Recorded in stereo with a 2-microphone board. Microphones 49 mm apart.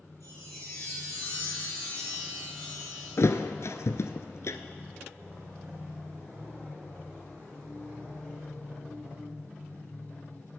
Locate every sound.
0.2 s a chime: 90° left, 7.5 m
3.2 s a thud: 70° left (ahead or behind), 0.8 m